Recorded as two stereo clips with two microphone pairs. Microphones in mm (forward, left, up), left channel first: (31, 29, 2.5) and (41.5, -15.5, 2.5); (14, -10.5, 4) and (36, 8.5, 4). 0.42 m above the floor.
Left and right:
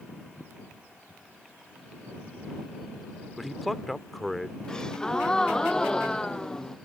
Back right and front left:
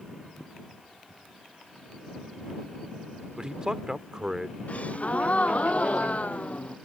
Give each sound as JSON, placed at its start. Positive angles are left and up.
{"t": 3.4, "sound": "a man speaking", "azimuth_deg": 10}
{"t": 4.7, "sound": "a gasp", "azimuth_deg": 180}